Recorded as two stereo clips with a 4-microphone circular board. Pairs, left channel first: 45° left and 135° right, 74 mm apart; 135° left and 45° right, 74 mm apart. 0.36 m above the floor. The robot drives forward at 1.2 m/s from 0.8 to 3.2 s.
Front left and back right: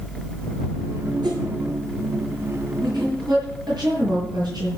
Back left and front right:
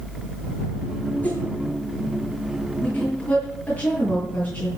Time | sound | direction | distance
1.2 | a whoosh | 155° right | 4.5 m
2.8 | a woman speaking | 155° right | 7.5 m